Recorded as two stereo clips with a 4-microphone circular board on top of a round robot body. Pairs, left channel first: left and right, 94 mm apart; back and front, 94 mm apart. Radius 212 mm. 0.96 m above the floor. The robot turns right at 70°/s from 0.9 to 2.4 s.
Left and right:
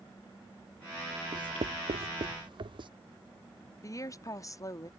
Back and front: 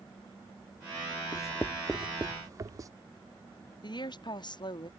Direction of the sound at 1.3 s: 130° right.